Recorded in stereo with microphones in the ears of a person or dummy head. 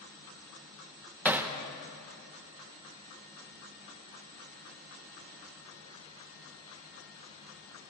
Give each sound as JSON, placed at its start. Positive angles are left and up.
{"t": 1.2, "sound": "hammering", "side_deg": -5, "distance_m": 1.1}